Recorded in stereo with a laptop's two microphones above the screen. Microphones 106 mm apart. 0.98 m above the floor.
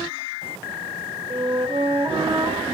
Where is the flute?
65° right (ahead or behind), 1.2 m.